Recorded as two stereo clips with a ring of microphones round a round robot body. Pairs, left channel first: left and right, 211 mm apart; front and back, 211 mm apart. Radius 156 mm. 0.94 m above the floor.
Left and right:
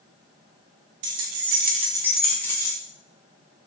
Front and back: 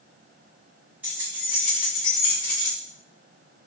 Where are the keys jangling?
95° right, 0.7 m; by 2.8 s 15° left, 1.3 m.